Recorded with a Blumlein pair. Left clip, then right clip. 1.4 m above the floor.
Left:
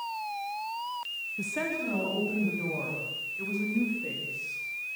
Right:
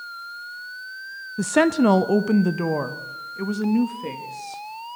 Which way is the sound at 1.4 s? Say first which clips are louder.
Right 15 dB; 30° right.